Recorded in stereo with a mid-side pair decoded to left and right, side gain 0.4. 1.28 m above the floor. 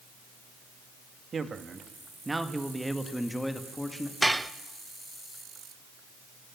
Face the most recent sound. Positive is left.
turn(degrees=-10)